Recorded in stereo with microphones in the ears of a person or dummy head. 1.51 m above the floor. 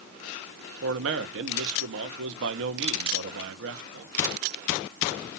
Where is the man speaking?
70° right (ahead or behind), 1.0 m.